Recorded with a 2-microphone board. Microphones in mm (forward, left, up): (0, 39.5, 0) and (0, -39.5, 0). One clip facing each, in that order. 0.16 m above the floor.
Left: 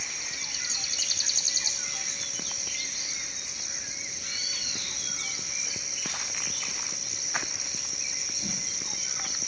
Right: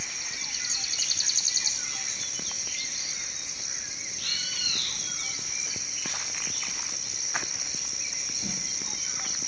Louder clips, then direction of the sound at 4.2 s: Right 2 dB; 70° right (ahead or behind).